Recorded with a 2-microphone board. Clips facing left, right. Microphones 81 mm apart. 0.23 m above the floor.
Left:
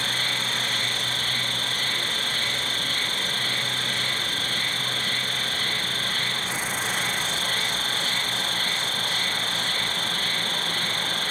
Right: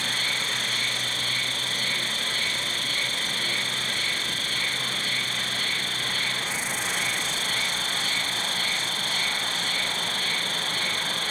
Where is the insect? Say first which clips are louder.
Left 1 dB; 45° left (ahead or behind), 0.7 m.